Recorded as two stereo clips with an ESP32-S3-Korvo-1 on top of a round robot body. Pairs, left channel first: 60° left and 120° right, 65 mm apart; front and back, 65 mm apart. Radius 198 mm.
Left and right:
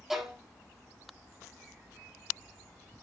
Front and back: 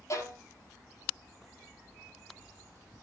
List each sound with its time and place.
0.1 s a violin: 40° right, 4.5 m